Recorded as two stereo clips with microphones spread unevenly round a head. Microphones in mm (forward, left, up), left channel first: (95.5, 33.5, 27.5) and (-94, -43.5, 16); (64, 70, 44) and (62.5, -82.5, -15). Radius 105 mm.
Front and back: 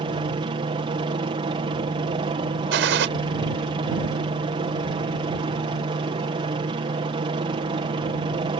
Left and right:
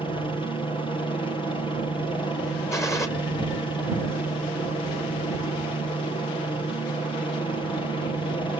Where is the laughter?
No laughter in this recording.